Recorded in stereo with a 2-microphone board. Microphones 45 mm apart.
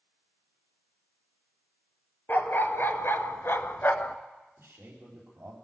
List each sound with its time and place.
2.3 s a dog barking: 45° left (ahead or behind), 1.0 m; by 4.2 s 40° left (ahead or behind), 0.6 m
4.6 s a man speaking: 55° right (ahead or behind), 4 m